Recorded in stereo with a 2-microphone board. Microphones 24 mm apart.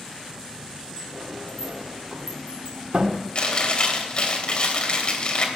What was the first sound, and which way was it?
A sliding door, 70° right (ahead or behind).